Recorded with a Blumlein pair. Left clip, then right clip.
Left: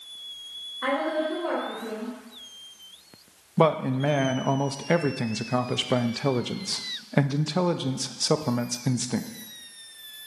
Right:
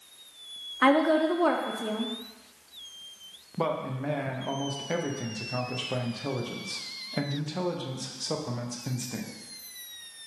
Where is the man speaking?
25° left, 0.5 m.